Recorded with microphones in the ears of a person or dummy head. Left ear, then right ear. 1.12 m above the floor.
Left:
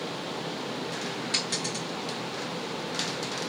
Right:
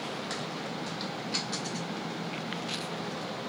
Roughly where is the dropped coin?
Left.